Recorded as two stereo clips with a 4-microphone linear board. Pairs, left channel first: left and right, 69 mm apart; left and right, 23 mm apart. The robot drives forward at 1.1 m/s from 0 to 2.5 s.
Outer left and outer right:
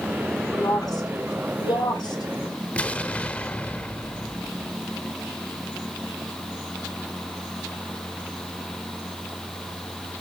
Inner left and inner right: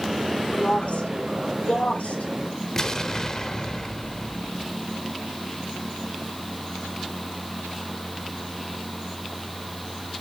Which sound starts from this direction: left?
A woman speaking, at 0.6 s.